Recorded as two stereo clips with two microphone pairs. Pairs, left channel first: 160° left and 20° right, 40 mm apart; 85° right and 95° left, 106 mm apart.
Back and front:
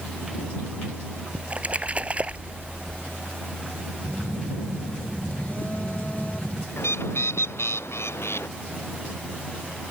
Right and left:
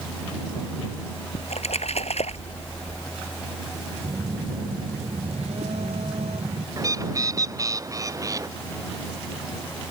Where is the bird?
155° left.